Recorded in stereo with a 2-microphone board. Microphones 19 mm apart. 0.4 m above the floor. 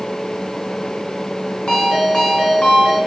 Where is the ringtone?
70° left (ahead or behind), 2.5 m.